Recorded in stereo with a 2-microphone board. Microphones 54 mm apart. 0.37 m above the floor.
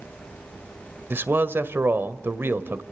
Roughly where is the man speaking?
Right.